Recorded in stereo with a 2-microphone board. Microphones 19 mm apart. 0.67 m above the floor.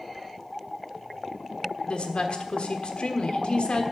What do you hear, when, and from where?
1.9 s a woman speaking: 70° left (ahead or behind), 1.4 m